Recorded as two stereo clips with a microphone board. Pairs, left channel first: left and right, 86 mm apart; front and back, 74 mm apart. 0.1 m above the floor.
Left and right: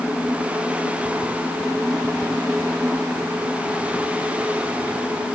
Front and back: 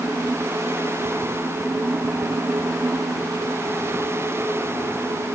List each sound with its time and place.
Only background noise.